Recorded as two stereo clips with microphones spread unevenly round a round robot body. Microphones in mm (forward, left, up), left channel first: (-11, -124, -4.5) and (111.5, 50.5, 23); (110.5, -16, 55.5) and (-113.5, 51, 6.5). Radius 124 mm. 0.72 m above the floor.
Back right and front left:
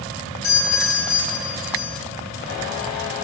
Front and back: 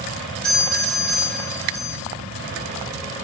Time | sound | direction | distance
0.4 | a doorbell | 110° right | 9.5 m